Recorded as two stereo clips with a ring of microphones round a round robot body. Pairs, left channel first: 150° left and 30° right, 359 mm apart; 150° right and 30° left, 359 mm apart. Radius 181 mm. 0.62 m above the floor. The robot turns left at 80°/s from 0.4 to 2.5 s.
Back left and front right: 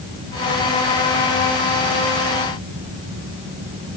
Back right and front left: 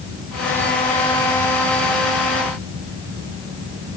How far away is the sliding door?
No sliding door in this recording.